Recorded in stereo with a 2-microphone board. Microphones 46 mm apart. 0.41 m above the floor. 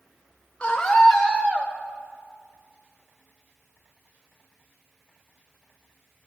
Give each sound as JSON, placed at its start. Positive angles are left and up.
{"t": 0.6, "sound": "a scream", "side_deg": 25, "distance_m": 1.1}